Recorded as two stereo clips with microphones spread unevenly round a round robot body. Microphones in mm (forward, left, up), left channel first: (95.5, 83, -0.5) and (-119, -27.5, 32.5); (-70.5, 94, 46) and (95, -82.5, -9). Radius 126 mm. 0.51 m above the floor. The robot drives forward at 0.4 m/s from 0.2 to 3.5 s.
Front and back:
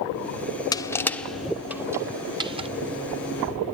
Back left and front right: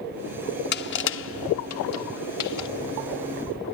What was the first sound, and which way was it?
Crushing, 85° left.